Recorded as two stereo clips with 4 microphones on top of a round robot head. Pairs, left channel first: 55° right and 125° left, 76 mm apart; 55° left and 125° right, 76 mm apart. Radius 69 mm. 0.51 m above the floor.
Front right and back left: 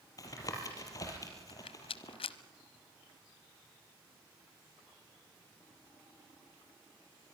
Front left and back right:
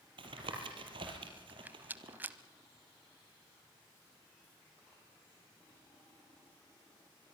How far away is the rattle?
About 0.8 m.